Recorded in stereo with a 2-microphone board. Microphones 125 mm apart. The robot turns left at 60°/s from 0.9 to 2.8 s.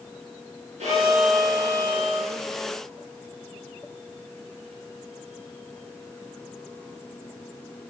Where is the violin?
70° right, 4.5 m; by 2.3 s 155° right, 4.5 m.